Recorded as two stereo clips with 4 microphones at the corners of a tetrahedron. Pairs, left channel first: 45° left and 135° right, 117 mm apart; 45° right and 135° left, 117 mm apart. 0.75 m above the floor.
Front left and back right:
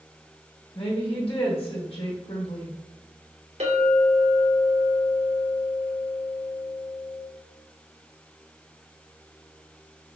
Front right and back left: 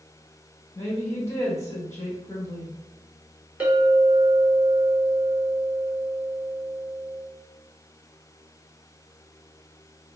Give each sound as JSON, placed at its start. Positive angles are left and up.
{"t": 0.8, "sound": "a woman speaking", "azimuth_deg": 15, "distance_m": 1.4}
{"t": 3.6, "sound": "a clink", "azimuth_deg": -145, "distance_m": 1.7}